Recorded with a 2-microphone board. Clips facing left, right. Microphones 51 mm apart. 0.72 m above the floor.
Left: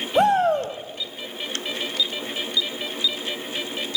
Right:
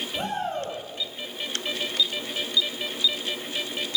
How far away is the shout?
About 4 m.